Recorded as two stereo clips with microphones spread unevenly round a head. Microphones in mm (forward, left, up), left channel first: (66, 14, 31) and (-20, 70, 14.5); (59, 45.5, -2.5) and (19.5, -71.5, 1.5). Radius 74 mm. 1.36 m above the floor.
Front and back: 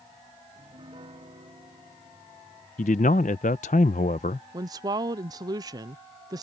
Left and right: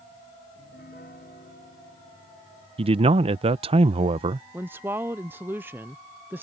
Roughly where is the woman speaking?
Behind.